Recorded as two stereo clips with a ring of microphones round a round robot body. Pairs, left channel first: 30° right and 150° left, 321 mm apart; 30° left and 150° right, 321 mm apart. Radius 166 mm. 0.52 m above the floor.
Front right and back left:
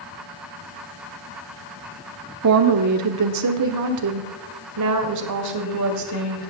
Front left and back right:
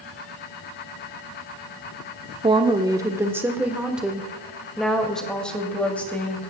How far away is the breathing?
I don't hear breathing.